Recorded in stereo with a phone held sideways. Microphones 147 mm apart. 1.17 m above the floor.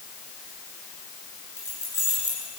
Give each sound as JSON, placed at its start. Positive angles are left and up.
{"t": 1.6, "sound": "keys jangling", "side_deg": 15, "distance_m": 8.5}